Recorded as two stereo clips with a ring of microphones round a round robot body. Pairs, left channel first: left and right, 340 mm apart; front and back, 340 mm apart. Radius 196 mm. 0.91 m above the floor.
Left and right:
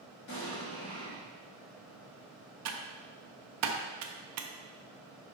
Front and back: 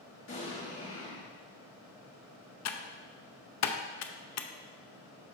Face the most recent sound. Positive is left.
turn(degrees=-45)